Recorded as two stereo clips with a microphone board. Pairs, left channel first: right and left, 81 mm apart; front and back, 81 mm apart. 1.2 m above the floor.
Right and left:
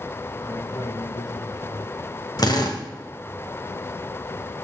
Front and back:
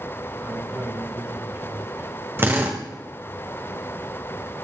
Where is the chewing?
I don't hear chewing.